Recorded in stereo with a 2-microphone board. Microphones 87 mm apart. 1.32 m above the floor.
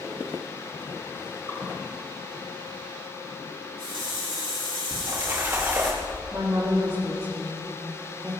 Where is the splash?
30° right (ahead or behind), 2 m.